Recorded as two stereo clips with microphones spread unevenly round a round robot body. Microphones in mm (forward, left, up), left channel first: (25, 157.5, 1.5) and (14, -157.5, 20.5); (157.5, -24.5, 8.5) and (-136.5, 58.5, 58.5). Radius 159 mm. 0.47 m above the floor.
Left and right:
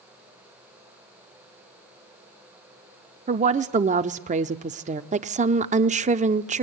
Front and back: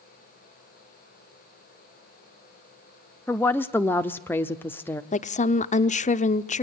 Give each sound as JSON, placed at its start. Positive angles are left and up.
{"t": 3.3, "sound": "a woman speaking", "azimuth_deg": -60, "distance_m": 0.7}
{"t": 5.1, "sound": "a woman speaking", "azimuth_deg": -35, "distance_m": 0.9}